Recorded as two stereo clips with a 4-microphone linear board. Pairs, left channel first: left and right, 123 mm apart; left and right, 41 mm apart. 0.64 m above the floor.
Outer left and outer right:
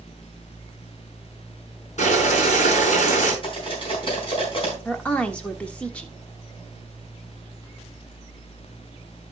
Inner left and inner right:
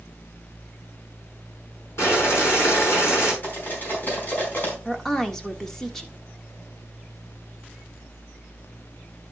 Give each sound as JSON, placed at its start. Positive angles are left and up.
{"t": 2.0, "sound": "boiling", "side_deg": 70, "distance_m": 6.5}
{"t": 3.4, "sound": "cutlery clinking", "side_deg": 45, "distance_m": 4.0}
{"t": 4.8, "sound": "a woman speaking", "side_deg": 10, "distance_m": 1.2}